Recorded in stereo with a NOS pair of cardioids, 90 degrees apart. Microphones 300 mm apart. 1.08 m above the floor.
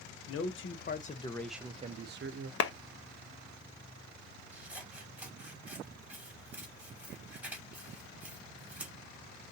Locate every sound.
0.3 s a man speaking: 55° left, 1.2 m; by 2.5 s 55° right, 0.9 m
2.6 s a clap: 55° left, 0.8 m
4.5 s scissors: 5° right, 2.5 m